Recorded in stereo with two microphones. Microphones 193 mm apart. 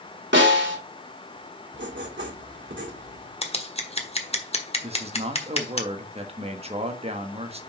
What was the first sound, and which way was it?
A snare drum, 70° right (ahead or behind).